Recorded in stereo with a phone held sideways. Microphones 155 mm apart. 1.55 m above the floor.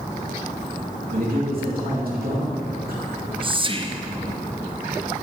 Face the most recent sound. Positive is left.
turn(degrees=-35)  # may be behind; listen again after turning